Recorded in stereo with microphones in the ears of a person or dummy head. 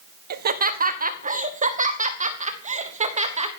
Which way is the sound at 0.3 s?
45° right (ahead or behind).